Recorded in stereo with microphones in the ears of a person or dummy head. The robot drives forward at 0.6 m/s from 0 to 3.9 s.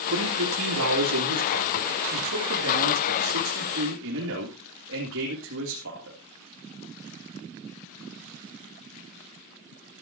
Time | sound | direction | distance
0.1 | a man speaking | 70° right (ahead or behind) | 3.5 m